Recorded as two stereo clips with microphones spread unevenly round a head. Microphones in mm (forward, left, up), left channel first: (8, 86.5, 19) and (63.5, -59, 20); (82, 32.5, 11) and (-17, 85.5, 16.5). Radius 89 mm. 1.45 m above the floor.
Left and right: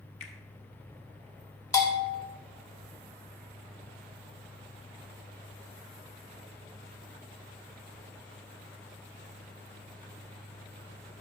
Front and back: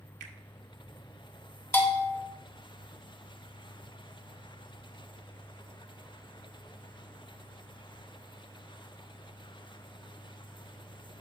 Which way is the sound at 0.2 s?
165° left.